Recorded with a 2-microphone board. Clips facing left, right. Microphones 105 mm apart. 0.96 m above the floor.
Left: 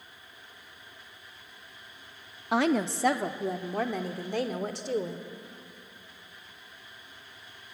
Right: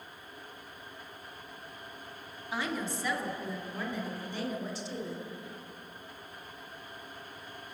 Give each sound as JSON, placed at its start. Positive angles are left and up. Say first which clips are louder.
{"t": 2.5, "sound": "a woman speaking", "louder": "left 9 dB", "side_deg": 70, "distance_m": 1.3}